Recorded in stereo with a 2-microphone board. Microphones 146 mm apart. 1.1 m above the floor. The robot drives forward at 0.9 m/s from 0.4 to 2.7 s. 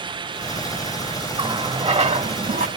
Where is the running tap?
35° right (ahead or behind), 2.0 m; by 2.7 s 70° right (ahead or behind), 1.2 m.